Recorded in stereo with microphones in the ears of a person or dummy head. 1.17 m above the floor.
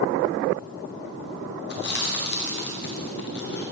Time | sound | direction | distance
1.7 | chewing | 50° left (ahead or behind) | 0.9 m